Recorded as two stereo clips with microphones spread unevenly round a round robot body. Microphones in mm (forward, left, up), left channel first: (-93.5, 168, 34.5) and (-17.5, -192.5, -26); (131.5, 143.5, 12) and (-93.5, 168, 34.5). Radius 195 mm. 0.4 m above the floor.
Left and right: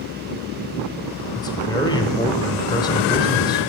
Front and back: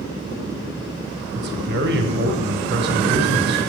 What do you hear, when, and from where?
1.4 s a man speaking: 170° right, 1.1 m